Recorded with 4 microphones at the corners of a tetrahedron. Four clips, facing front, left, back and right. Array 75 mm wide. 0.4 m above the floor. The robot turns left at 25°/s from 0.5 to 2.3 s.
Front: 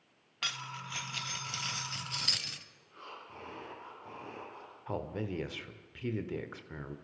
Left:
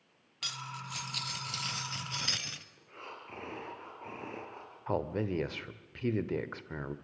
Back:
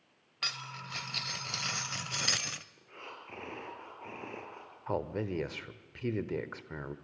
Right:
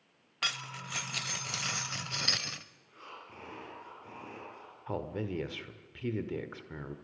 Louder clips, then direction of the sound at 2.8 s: Left 2 dB, back 1 dB; 145° left.